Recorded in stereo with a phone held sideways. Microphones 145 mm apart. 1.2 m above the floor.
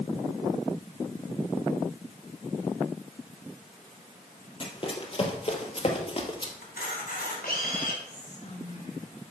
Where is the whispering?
55° left (ahead or behind), 5 m.